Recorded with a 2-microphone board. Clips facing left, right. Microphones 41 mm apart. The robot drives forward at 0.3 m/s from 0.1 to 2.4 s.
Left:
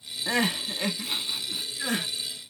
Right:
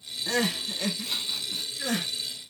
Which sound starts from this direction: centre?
Crying, at 0.3 s.